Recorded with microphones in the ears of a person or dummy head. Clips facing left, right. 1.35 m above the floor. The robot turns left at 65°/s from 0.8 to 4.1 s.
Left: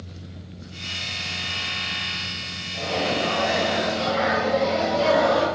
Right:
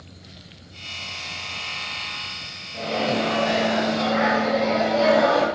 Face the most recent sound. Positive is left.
turn(degrees=-90)